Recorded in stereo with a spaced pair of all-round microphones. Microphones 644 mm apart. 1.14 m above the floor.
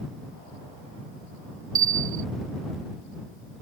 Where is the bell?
55° right (ahead or behind).